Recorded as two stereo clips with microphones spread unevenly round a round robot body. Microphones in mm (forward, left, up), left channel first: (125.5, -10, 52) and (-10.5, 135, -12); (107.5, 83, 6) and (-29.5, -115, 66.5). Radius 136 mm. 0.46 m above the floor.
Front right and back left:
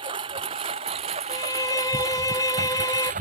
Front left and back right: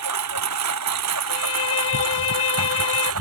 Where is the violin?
25° left.